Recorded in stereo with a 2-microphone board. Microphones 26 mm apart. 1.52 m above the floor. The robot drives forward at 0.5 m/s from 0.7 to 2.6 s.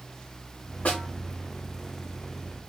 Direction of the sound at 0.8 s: 70° left (ahead or behind).